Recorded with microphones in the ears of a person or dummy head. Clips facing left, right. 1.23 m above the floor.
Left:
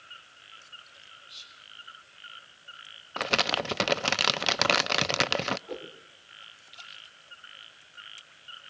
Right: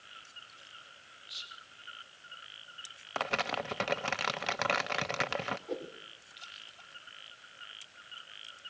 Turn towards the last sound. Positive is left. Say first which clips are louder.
# right 1 dB
turn(degrees=-5)  # may be behind; listen again after turning